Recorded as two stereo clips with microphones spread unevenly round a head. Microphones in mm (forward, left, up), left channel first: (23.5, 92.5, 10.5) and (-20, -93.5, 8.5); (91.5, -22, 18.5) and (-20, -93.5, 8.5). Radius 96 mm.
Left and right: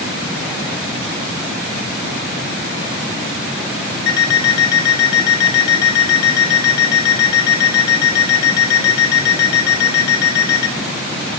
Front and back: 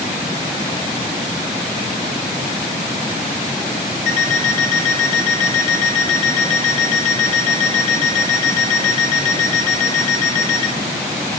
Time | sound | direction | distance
4.1 | an alarm clock | 55° left | 1.2 m